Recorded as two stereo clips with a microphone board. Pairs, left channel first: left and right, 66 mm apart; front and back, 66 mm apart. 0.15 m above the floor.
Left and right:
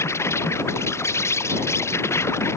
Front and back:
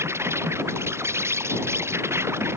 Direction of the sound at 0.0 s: 135° left.